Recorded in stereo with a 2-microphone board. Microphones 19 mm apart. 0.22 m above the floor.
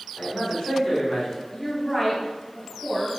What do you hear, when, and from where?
0.2 s a man speaking: 5° right (ahead or behind), 2.0 m; by 1.4 s 20° left (ahead or behind), 1.8 m
1.5 s a woman speaking: 10° left (ahead or behind), 1.9 m